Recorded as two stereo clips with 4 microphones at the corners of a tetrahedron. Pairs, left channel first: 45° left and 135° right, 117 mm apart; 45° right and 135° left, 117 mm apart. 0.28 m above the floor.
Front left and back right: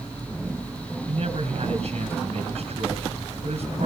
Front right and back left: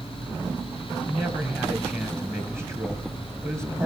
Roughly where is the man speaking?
Behind.